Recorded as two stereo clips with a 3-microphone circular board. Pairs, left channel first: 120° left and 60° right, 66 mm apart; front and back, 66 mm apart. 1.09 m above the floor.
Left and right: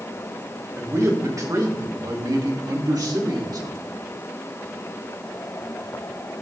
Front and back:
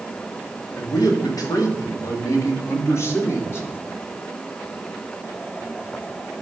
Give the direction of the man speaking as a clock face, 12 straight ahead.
1 o'clock.